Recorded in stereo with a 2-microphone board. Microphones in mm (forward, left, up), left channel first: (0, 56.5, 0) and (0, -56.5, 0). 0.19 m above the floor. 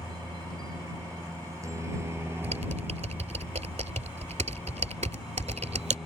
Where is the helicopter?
35° right (ahead or behind); by 6.1 s centre (ahead or behind).